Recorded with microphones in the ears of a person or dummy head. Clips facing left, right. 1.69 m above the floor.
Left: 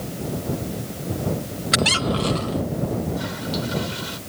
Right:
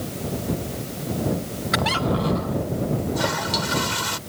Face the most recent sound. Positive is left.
turn(degrees=-70)  # may be behind; listen again after turning